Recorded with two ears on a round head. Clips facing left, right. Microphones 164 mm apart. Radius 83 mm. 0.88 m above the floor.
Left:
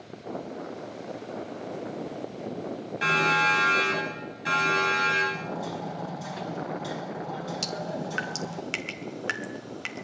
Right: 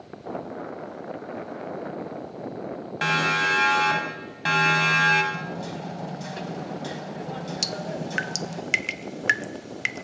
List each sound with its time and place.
3.0 s a siren: 65° right (ahead or behind), 9 m; by 5.2 s 75° right (ahead or behind), 10 m
5.3 s hammering: 30° right (ahead or behind), 5 m
7.6 s dripping: 20° right (ahead or behind), 1.3 m